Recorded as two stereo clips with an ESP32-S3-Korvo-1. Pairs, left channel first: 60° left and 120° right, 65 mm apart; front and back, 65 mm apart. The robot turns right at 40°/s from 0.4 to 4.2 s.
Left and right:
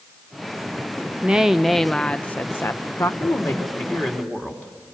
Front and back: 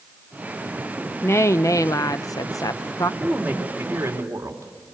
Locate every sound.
1.2 s a woman speaking: 50° right, 0.7 m; by 3.1 s 25° left, 0.7 m
3.2 s a woman speaking: 90° left, 3 m; by 4.9 s 130° left, 3 m